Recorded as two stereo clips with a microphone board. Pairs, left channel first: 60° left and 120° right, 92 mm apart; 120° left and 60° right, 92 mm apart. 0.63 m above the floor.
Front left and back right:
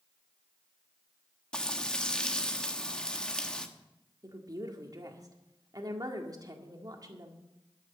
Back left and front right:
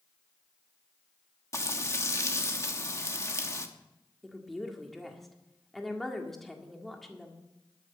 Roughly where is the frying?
Behind left.